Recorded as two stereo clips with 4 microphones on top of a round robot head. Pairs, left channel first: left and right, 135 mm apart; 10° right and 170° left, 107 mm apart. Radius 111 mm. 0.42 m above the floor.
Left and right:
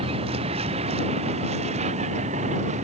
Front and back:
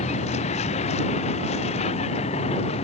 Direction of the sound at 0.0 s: 35° right.